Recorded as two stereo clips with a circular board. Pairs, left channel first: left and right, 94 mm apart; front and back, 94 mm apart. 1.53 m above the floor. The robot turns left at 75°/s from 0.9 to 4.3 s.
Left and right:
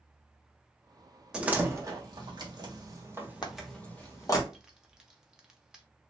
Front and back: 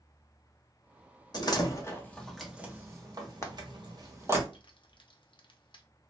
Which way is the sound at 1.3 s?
10° right.